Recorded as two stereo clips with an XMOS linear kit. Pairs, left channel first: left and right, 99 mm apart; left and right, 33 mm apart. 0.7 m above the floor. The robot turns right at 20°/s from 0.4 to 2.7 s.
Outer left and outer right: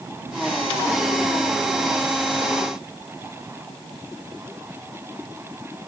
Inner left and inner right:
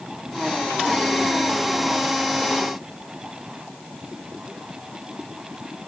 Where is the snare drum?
No snare drum in this recording.